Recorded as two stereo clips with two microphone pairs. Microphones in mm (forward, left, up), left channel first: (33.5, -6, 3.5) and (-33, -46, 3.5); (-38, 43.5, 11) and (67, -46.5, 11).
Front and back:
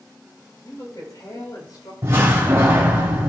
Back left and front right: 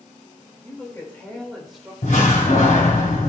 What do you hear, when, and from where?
0.6 s a woman speaking: 70° left, 3.5 m; by 1.9 s 45° left, 3.5 m
2.0 s a door slam: 155° left, 2.5 m